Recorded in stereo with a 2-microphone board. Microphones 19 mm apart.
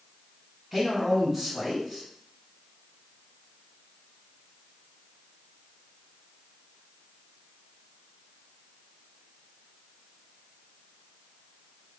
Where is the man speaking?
5° right (ahead or behind), 1.5 m.